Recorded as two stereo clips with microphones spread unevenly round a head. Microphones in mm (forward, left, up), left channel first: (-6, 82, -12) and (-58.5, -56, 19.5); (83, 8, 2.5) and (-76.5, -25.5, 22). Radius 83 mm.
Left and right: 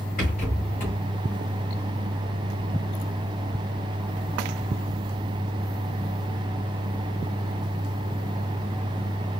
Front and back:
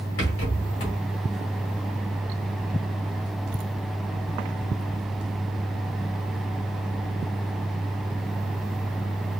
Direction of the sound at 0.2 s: 15° left.